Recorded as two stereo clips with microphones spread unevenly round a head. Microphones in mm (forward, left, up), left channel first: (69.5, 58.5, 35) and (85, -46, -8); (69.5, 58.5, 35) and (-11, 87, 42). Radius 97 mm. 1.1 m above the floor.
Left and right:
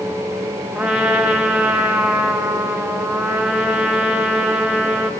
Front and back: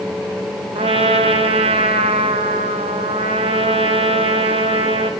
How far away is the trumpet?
About 0.8 m.